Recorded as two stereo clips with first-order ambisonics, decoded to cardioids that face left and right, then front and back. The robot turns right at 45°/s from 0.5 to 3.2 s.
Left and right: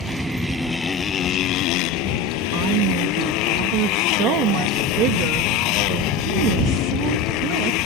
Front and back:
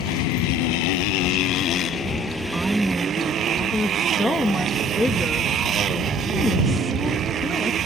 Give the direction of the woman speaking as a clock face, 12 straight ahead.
4 o'clock.